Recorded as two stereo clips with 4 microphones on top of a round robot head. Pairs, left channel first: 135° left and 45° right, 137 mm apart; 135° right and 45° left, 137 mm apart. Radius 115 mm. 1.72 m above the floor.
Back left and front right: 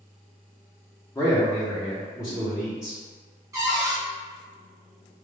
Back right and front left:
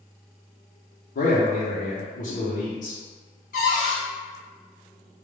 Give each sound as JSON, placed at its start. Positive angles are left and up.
{"t": 1.1, "sound": "a man speaking", "azimuth_deg": -155, "distance_m": 0.7}
{"t": 3.5, "sound": "a cupboard door", "azimuth_deg": -115, "distance_m": 0.6}